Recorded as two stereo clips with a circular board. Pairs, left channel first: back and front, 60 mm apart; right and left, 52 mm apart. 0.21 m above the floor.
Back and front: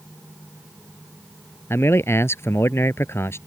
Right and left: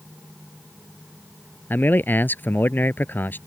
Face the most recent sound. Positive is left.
turn(degrees=-140)